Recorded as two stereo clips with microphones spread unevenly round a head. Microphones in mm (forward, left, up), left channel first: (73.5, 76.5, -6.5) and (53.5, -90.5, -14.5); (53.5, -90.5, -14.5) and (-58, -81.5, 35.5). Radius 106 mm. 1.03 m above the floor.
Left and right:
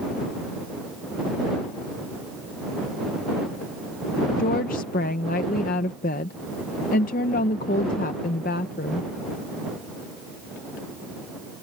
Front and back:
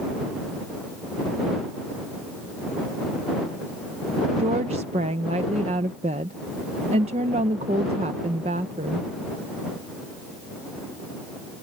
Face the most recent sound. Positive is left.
turn(degrees=115)